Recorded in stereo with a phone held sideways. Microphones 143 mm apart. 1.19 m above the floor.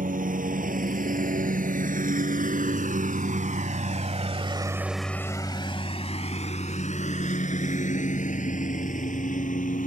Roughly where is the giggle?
No giggle in this recording.